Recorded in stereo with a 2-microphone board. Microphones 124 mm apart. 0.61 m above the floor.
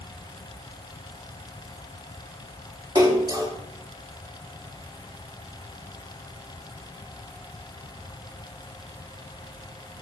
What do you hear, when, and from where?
3.0 s a splash: 35° right (ahead or behind), 1.4 m